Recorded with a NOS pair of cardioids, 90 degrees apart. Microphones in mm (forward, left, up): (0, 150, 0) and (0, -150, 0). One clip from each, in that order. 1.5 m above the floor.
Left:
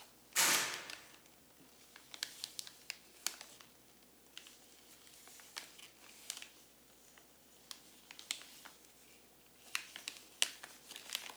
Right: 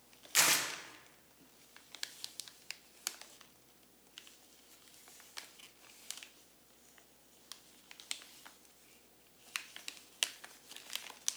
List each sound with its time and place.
0.3 s tearing paper: 45° right, 1.4 m